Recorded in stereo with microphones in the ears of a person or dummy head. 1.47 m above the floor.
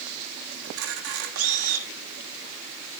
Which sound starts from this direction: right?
A camera shutter, at 0.6 s.